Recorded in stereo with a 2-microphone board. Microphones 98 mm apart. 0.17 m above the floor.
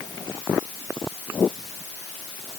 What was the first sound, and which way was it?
Only background noise.